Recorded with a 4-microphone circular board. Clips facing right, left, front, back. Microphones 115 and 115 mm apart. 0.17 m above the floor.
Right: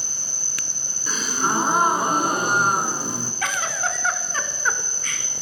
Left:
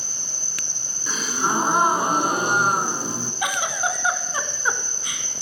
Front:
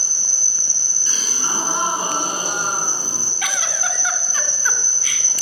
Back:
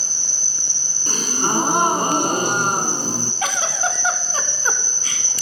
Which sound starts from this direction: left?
An insect, at 0.0 s.